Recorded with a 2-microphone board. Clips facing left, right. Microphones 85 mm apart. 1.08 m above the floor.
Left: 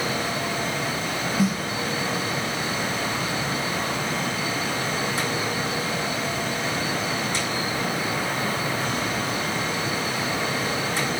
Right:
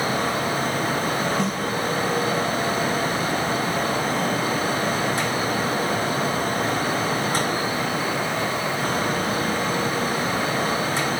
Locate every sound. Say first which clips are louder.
1.4 s a snare drum: left 1 dB; 5° left (ahead or behind), 0.7 m